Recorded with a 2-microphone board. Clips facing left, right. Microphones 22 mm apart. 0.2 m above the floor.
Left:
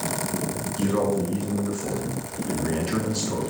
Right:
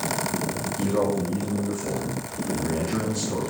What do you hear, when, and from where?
0.8 s a man speaking: 60° left (ahead or behind), 2.5 m